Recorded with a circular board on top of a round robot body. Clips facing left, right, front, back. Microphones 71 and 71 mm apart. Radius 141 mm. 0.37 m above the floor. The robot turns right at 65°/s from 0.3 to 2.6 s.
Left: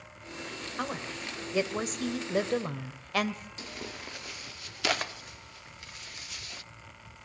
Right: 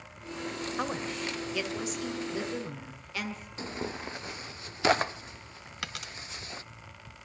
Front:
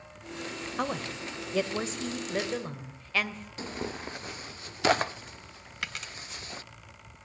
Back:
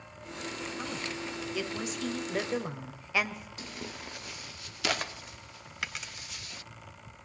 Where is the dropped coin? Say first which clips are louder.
Right 11 dB, front 1 dB; 90° right, 1.0 m.